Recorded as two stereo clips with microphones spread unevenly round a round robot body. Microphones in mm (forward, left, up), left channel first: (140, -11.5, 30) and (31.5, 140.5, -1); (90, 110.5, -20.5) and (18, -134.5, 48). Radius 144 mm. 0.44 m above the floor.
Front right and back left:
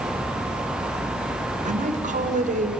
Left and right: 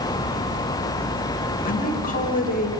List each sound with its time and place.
1.6 s a woman speaking: 105° left, 2.0 m